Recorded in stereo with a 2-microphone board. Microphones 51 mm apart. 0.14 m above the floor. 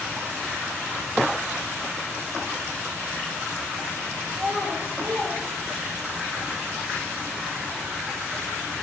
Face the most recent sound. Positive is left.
turn(degrees=-45)  # may be behind; listen again after turning